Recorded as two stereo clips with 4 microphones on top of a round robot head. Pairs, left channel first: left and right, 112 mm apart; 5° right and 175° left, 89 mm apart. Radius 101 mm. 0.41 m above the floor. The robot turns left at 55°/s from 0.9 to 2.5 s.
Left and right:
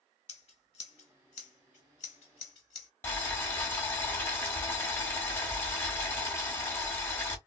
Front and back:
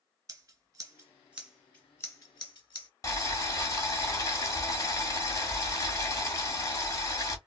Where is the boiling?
30° left, 1.6 m.